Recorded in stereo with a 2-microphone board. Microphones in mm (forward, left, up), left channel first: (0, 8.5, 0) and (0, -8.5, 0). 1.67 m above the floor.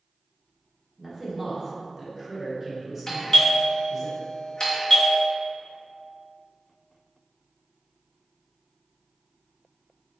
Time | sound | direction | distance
1.0 | a man speaking | 20° right (ahead or behind) | 1.0 m
3.1 | a doorbell | 40° left (ahead or behind) | 0.9 m